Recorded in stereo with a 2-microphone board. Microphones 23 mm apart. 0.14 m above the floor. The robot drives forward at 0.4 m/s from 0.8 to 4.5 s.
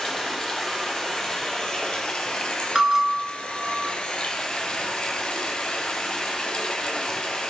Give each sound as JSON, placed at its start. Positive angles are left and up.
{"t": 0.0, "sound": "running water", "side_deg": 20, "distance_m": 1.2}
{"t": 2.8, "sound": "a bell", "side_deg": -25, "distance_m": 0.6}